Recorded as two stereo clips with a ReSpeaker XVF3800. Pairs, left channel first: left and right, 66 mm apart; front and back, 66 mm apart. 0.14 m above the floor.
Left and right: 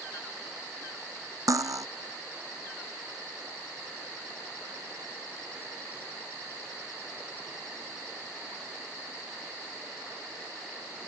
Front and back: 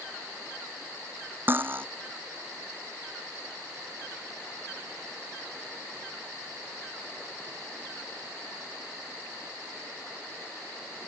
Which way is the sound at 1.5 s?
120° right.